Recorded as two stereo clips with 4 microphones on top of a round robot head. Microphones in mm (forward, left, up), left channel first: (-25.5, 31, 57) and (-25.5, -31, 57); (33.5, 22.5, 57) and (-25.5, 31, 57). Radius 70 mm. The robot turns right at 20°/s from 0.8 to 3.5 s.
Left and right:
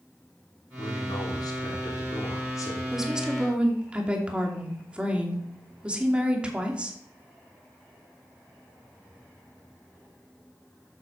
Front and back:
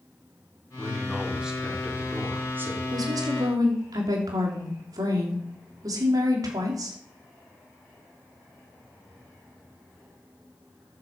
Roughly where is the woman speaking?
Behind.